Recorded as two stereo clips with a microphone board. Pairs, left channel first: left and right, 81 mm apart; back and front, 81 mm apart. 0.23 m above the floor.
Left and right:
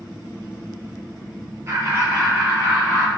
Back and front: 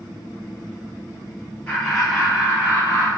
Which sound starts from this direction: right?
Laughter, at 1.7 s.